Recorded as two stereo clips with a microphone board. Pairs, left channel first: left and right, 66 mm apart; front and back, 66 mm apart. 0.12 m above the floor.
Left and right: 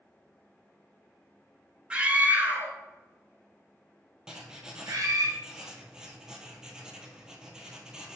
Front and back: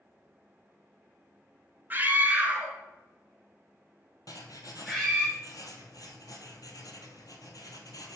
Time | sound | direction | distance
1.9 | a scream | 150° right | 1.2 m
4.3 | writing | 10° right | 1.0 m